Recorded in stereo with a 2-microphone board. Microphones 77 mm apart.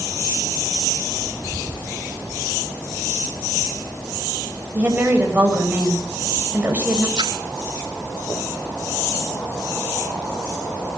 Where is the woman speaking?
20° right (ahead or behind), 7 m.